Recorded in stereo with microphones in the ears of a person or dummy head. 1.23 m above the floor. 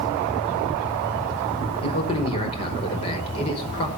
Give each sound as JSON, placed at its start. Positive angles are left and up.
{"t": 1.8, "sound": "a man speaking", "side_deg": 30, "distance_m": 5.5}